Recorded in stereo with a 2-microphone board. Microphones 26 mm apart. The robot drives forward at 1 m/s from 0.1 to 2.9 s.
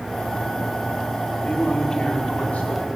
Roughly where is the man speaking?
Left.